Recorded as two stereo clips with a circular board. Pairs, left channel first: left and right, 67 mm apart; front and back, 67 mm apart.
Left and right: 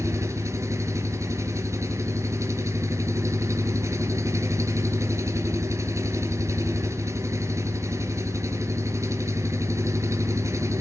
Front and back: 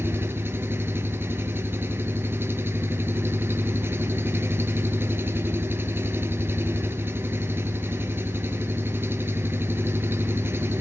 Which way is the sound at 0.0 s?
125° right.